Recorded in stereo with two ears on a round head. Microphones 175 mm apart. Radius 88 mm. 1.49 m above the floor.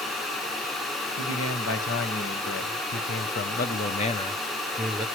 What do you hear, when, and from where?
1.2 s a man speaking: 80° left, 2 m; by 5.1 s 5° right (ahead or behind), 1.0 m